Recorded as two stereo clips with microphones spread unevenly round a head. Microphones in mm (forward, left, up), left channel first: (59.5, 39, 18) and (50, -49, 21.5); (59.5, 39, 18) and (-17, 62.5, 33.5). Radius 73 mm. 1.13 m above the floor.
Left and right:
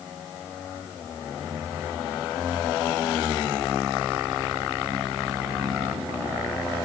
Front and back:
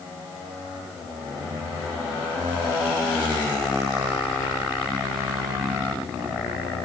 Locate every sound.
Only background noise.